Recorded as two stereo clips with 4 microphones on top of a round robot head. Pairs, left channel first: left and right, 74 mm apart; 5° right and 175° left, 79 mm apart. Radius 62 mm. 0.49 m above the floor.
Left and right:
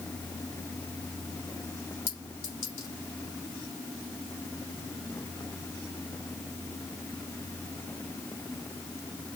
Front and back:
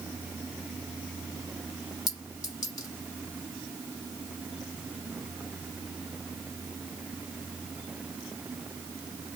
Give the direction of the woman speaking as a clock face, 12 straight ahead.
No woman speaking in this recording.